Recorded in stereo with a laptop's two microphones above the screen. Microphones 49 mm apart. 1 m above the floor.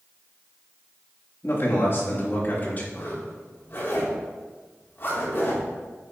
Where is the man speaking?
55° left (ahead or behind), 2 m; by 2.8 s 35° left (ahead or behind), 2.0 m.